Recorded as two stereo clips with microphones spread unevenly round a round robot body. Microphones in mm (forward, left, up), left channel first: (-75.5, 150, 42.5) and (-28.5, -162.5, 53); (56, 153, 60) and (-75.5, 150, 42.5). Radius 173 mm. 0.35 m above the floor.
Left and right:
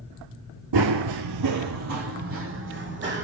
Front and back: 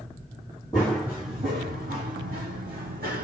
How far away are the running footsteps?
About 0.5 m.